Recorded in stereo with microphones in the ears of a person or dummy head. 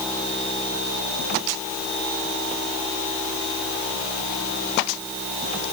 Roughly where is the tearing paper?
I don't hear tearing paper.